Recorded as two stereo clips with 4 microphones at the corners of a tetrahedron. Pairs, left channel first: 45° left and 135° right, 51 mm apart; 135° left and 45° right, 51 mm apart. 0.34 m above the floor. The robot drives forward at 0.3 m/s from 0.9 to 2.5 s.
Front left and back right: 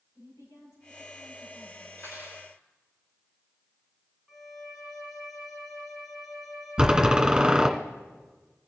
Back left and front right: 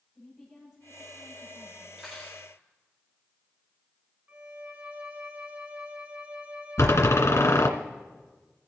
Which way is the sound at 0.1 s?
40° left.